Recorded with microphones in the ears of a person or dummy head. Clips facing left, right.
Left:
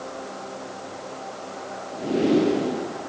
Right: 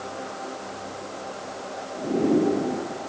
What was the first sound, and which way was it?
Only background noise.